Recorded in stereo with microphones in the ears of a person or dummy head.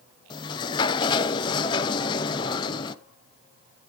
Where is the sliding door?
30° left (ahead or behind), 0.6 m.